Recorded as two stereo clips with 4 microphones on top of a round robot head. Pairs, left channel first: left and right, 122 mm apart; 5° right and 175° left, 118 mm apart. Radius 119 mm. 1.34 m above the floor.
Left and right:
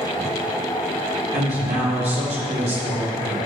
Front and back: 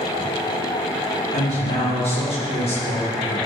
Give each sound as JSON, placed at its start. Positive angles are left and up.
{"t": 1.3, "sound": "a woman speaking", "azimuth_deg": -45, "distance_m": 3.5}